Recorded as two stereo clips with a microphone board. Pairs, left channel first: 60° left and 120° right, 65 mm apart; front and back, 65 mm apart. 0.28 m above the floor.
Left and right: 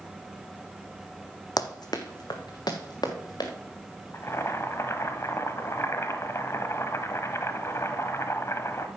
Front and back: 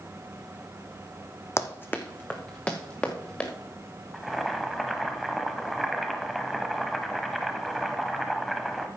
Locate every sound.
1.6 s running footsteps: 45° left, 0.9 m; by 3.5 s 70° left, 2.5 m
4.1 s boiling: 90° left, 1.0 m